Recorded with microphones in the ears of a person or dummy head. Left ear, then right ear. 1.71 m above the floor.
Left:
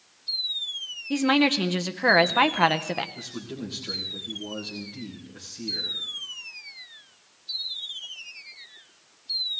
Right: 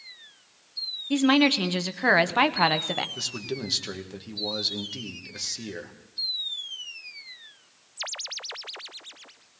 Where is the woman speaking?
Centre (ahead or behind), 0.6 m.